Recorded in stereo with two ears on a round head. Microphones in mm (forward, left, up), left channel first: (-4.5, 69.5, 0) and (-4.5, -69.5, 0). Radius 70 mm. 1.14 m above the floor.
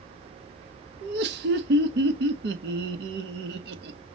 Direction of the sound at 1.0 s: 80° right.